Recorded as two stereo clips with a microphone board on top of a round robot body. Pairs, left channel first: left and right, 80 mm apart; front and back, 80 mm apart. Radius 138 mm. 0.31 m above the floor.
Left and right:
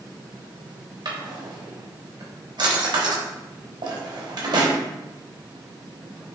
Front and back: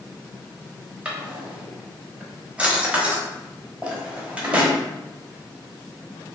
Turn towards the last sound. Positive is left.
turn(degrees=-105)